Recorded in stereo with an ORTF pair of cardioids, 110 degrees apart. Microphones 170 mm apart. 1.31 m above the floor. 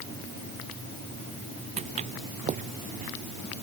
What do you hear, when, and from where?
1.8 s footsteps: 40° right; by 3.1 s 50° right